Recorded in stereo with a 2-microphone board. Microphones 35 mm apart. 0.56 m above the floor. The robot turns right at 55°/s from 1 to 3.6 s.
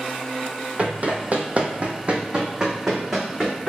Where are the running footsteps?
40° right (ahead or behind), 0.8 m; by 3.7 s 15° left (ahead or behind), 1.6 m.